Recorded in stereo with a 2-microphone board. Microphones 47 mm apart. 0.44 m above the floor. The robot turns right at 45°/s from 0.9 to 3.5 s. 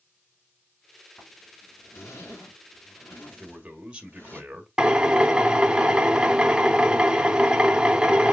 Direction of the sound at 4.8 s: 20° right (ahead or behind).